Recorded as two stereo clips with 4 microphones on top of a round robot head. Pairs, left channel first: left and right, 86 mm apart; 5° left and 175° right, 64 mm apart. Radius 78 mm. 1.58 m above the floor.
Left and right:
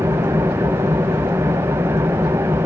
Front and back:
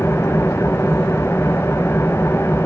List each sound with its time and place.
0.0 s an engine running: 55° right, 0.7 m